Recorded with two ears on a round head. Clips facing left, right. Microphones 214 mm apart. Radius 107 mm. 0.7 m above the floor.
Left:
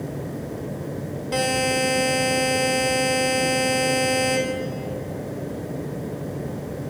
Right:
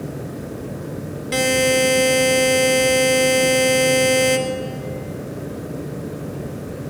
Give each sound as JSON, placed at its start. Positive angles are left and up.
{"t": 1.3, "sound": "a buzzer", "side_deg": -30, "distance_m": 2.5}